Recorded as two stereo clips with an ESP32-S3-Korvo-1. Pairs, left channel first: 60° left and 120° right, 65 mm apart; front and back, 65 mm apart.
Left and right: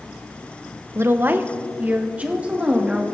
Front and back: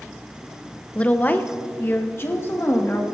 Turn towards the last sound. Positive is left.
turn(degrees=-50)